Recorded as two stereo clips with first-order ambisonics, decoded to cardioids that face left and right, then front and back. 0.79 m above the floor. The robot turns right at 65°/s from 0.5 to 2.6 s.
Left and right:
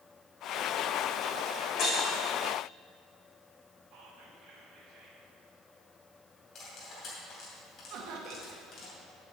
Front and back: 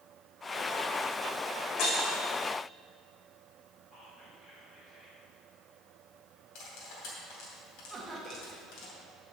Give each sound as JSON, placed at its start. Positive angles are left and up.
{"t": 1.8, "sound": "breaking glass", "azimuth_deg": 30, "distance_m": 3.5}
{"t": 3.9, "sound": "whispering", "azimuth_deg": -50, "distance_m": 3.0}
{"t": 6.5, "sound": "cutlery clinking", "azimuth_deg": 30, "distance_m": 2.5}
{"t": 7.9, "sound": "laughter", "azimuth_deg": -100, "distance_m": 0.9}